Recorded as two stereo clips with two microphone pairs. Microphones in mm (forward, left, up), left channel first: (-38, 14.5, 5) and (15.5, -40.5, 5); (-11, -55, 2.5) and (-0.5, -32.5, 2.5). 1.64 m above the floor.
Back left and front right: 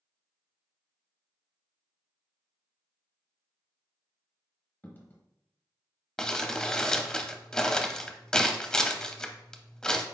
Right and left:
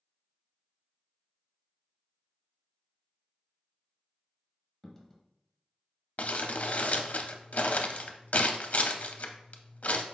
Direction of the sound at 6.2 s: 145° right.